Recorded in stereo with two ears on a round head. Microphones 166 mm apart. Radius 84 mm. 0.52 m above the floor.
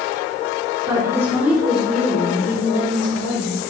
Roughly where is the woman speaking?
Centre.